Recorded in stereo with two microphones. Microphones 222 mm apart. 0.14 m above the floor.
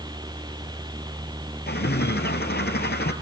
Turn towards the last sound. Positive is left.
turn(degrees=50)  # may be behind; listen again after turning